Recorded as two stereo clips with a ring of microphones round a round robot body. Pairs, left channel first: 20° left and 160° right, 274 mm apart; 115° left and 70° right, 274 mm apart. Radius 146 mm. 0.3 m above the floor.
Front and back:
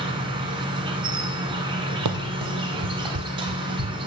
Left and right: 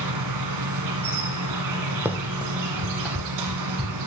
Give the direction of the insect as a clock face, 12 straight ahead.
3 o'clock.